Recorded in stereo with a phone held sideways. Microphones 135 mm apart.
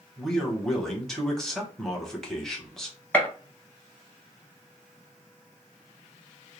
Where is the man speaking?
5° left (ahead or behind), 0.9 m.